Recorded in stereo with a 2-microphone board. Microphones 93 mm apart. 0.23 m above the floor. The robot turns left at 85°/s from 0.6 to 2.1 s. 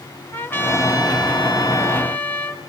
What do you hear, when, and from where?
0.3 s a trumpet: 150° left, 1.7 m; by 2.6 s 25° left, 1.7 m